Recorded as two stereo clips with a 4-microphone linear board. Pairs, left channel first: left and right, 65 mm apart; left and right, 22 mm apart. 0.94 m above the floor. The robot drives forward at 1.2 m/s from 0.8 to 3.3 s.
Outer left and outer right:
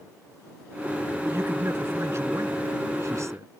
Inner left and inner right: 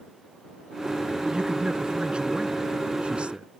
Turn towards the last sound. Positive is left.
turn(degrees=-50)  # may be behind; listen again after turning